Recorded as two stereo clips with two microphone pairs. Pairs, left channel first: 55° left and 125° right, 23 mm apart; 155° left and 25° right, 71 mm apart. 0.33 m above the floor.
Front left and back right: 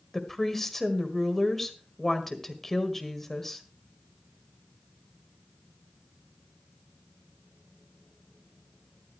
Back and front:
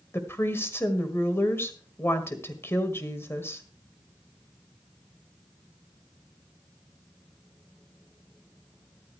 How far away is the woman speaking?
About 1.8 m.